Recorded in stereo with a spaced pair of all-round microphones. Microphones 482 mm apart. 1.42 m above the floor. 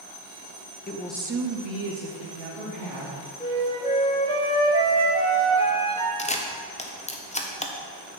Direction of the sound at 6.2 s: 15° left (ahead or behind).